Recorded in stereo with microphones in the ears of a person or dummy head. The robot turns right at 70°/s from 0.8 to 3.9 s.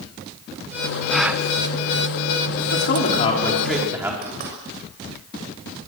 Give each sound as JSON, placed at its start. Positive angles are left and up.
{"t": 1.1, "sound": "a gasp", "side_deg": 5, "distance_m": 1.3}
{"t": 2.7, "sound": "a man speaking", "azimuth_deg": 110, "distance_m": 4.0}
{"t": 4.2, "sound": "knocking", "side_deg": -50, "distance_m": 6.5}